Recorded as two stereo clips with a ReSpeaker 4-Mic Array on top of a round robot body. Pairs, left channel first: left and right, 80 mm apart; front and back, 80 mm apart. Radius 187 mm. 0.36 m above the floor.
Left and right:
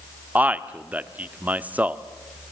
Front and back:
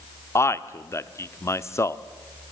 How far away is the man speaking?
About 1.2 m.